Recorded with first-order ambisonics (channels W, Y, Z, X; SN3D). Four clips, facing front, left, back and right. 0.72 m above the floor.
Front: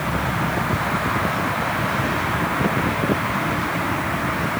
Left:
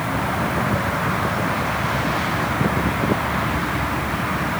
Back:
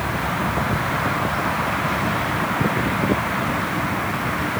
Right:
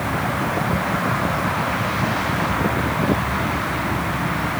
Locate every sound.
Only background noise.